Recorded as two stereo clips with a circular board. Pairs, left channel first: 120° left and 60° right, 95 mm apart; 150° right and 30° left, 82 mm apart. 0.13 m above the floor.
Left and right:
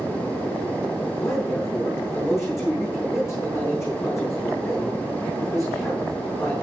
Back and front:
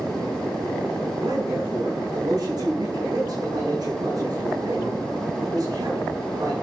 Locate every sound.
1.2 s a man speaking: 65° left, 8 m